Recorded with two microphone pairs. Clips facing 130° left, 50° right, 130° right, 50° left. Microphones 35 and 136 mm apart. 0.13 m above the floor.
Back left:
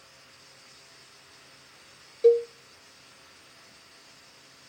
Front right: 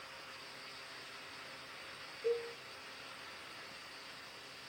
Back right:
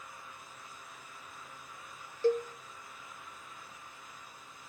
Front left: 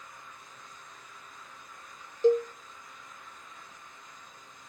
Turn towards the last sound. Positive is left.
turn(degrees=120)